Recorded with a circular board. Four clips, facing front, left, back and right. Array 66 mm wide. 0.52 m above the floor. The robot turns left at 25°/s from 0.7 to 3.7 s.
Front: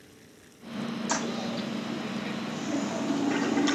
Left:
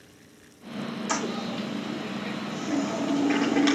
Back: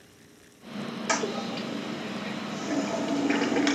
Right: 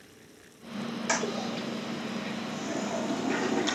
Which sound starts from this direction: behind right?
A toilet flushing, at 1.1 s.